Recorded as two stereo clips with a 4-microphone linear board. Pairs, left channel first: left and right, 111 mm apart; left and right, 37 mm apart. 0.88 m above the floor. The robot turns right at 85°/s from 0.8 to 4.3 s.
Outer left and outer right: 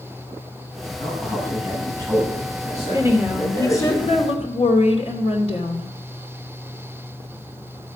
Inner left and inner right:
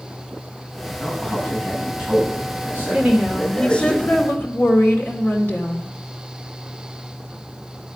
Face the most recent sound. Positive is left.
turn(degrees=80)